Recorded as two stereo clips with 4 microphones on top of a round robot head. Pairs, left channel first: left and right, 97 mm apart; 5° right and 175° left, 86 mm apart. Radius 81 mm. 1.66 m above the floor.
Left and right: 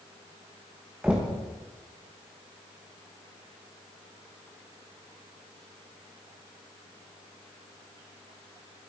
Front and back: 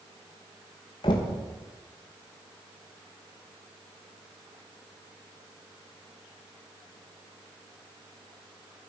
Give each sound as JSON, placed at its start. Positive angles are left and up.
{"t": 1.0, "sound": "knocking", "azimuth_deg": -10, "distance_m": 1.0}